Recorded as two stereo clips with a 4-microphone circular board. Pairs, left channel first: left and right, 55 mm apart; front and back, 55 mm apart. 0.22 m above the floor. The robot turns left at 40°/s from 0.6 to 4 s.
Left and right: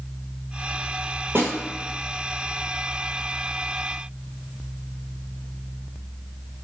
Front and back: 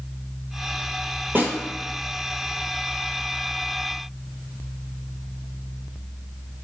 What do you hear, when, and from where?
1.4 s a snare drum: 130° right, 0.9 m; by 1.5 s 135° right, 0.9 m